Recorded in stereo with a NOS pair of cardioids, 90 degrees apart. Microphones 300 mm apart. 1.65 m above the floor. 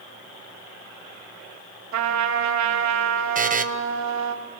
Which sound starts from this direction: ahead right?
A buzzer, at 3.4 s.